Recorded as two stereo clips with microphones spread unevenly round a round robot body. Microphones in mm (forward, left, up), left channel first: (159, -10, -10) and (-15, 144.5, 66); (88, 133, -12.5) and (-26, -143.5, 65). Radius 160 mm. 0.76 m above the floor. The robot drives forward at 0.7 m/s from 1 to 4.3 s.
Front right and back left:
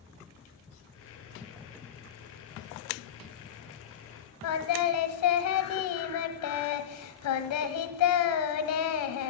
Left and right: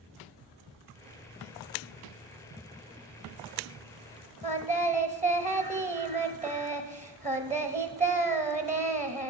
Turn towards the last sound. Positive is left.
turn(degrees=-55)